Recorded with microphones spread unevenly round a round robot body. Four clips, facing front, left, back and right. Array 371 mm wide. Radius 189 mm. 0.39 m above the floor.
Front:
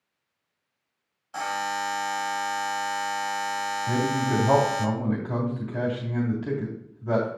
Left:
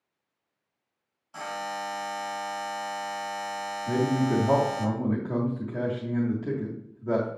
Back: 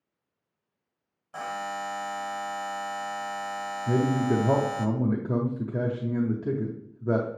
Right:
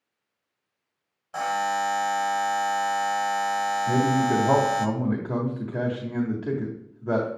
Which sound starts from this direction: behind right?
A buzzer, at 1.3 s.